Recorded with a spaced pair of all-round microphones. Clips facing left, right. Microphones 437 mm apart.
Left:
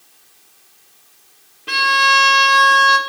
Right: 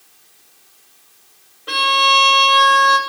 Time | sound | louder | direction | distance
1.7 | a violin | right 2 dB | 45° left (ahead or behind) | 0.8 m